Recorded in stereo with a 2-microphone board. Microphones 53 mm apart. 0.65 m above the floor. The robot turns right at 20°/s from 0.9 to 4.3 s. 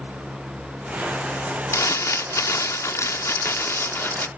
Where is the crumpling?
80° left; by 4.3 s 130° left.